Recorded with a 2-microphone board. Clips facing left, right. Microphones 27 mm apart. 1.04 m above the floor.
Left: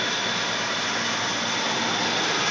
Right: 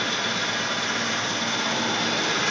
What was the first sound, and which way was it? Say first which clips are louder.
An engine running: even; 30° left (ahead or behind).